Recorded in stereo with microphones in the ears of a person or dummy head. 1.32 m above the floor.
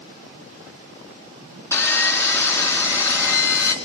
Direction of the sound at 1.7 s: 10° left (ahead or behind).